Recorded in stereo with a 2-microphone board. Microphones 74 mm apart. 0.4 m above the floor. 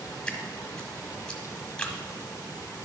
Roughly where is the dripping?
Centre.